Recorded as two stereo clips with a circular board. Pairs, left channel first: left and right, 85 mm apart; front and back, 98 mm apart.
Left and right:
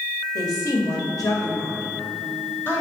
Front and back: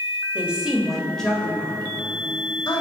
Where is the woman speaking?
110° left, 1.2 m; by 2.8 s 35° left, 1.3 m.